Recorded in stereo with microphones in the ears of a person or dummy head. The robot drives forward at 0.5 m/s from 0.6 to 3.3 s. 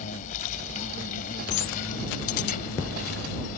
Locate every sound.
0.0 s an insect: 45° left (ahead or behind); by 3.6 s 50° left (ahead or behind)